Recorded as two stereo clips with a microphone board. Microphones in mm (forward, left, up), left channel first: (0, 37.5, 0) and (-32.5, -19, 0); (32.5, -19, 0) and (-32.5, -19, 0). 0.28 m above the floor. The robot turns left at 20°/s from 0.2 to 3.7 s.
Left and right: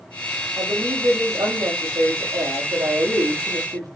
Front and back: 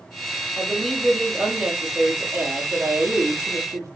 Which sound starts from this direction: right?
A woman speaking, at 0.6 s.